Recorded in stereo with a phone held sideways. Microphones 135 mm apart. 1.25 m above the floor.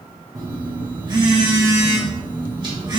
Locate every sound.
0.3 s a phone buzzing: 30° right (ahead or behind), 0.9 m